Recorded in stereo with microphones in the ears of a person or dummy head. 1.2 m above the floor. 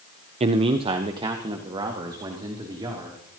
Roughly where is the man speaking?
Right.